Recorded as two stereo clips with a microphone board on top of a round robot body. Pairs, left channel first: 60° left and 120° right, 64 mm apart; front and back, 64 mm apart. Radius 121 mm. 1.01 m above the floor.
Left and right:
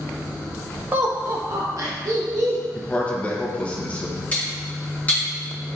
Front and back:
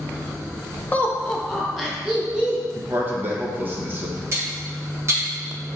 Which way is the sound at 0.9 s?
65° right.